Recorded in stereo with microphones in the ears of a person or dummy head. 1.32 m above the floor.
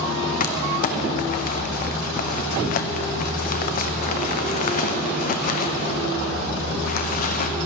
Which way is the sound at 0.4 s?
40° left (ahead or behind).